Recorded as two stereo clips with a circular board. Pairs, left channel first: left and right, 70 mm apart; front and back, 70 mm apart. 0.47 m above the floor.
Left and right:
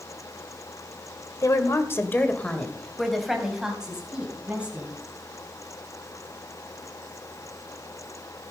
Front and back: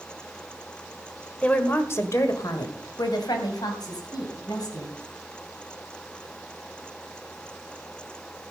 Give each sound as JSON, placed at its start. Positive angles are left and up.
{"t": 1.4, "sound": "a woman speaking", "azimuth_deg": 70, "distance_m": 1.7}